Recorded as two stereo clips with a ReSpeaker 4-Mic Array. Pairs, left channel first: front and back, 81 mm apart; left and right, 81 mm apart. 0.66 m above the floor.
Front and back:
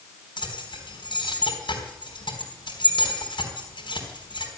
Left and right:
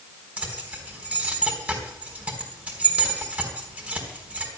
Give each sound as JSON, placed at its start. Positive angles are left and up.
{"t": 0.4, "sound": "keys jangling", "azimuth_deg": -15, "distance_m": 4.0}